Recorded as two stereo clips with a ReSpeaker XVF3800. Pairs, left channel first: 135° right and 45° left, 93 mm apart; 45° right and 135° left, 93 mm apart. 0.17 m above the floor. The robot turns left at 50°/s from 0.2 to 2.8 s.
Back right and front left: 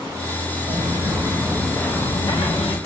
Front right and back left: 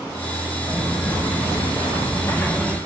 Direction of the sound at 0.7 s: 30° left.